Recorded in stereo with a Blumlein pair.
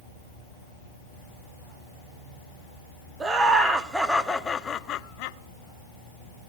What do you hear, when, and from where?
3.2 s laughter: 15° right, 1.3 m; by 5.4 s 50° left, 0.8 m